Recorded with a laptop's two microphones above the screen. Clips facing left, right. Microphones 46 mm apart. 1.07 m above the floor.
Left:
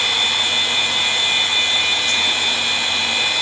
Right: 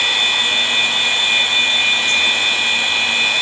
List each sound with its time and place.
0.0 s a machine running: 30° right (ahead or behind), 8.5 m